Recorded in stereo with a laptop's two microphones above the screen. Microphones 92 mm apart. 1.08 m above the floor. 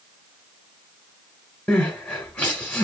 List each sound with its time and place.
1.7 s crying: 15° left (ahead or behind), 1.1 m